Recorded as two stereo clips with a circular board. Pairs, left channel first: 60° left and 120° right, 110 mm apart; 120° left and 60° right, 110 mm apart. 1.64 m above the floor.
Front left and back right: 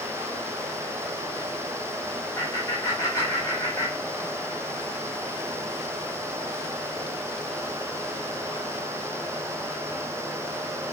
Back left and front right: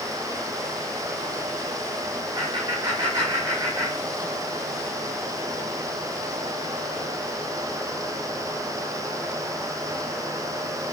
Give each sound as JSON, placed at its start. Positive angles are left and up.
{"t": 2.4, "sound": "laughter", "azimuth_deg": -10, "distance_m": 6.5}